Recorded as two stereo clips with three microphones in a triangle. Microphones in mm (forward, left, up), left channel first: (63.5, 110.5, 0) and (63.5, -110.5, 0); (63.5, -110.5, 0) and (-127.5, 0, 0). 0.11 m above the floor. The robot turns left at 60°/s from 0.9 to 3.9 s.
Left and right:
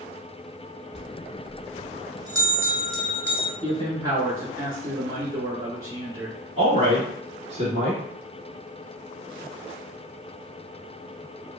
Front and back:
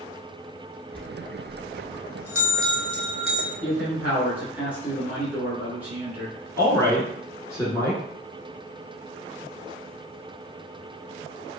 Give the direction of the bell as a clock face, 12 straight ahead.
2 o'clock.